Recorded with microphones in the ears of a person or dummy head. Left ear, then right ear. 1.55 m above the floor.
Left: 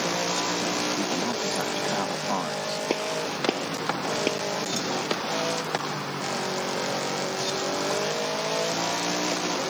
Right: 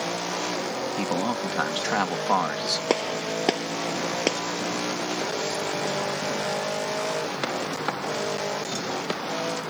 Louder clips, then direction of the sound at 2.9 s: Right 2 dB; 50° right (ahead or behind).